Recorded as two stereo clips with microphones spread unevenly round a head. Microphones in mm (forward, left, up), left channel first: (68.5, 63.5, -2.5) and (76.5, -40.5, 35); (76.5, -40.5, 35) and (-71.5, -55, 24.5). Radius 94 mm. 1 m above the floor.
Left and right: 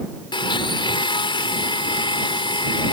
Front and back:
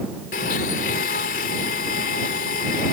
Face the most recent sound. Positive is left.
turn(degrees=50)